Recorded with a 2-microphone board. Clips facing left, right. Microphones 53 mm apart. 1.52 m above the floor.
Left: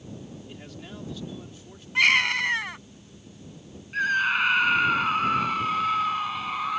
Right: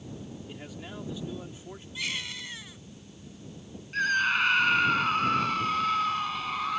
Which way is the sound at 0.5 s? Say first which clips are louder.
Even; 5° right (ahead or behind).